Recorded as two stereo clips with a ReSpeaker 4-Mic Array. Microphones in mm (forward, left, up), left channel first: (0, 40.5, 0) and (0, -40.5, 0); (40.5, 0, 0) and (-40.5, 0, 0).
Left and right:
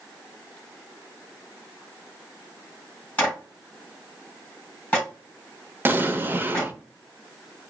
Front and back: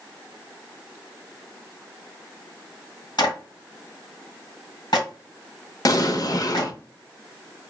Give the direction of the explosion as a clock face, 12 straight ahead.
1 o'clock.